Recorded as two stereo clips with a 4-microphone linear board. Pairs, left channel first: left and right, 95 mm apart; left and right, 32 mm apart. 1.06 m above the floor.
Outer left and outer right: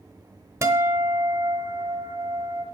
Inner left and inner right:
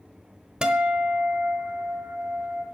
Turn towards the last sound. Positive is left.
turn(degrees=-30)  # may be behind; listen again after turning